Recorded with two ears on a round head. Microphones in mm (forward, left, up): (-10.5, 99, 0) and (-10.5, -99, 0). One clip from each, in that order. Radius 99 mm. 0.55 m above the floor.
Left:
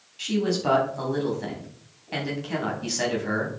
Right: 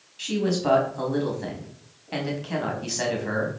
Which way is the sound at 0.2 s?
Centre (ahead or behind).